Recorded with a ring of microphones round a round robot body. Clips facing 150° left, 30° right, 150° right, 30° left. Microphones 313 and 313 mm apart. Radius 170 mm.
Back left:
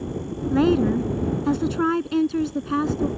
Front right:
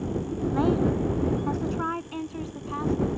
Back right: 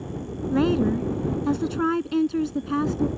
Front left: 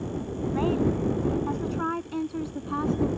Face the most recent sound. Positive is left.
turn(degrees=165)